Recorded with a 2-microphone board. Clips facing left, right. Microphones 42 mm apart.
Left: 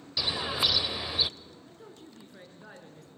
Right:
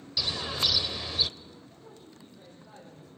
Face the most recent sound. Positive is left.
turn(degrees=75)  # may be behind; listen again after turning